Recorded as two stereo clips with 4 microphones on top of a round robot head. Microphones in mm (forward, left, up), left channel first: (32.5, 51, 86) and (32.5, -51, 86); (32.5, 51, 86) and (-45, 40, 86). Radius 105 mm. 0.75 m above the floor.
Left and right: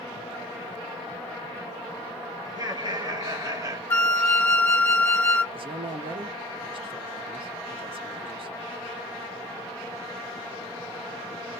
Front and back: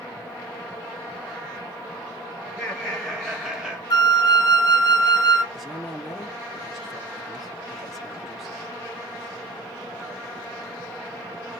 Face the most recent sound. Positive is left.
turn(degrees=-85)